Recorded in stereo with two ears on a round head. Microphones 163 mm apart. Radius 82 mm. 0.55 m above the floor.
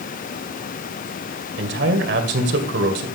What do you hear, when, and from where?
1.6 s a man speaking: 65° right (ahead or behind), 2 m